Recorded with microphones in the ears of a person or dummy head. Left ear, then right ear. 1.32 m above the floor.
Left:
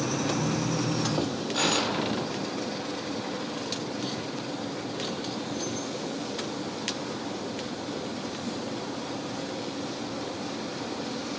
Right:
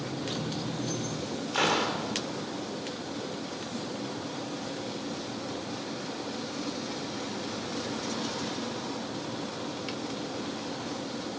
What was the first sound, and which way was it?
A gunshot, 30° right (ahead or behind).